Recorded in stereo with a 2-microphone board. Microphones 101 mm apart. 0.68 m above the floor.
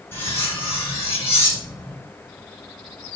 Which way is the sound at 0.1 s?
20° left (ahead or behind).